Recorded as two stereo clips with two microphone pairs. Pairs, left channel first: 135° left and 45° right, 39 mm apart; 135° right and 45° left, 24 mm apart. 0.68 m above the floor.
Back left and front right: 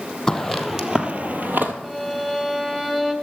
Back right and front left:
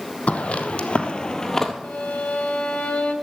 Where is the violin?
125° right, 2 m.